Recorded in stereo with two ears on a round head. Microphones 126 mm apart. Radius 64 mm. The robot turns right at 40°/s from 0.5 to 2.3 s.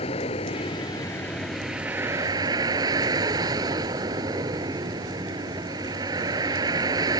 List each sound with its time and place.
0.0 s a vehicle: 135° left; by 7.2 s 150° right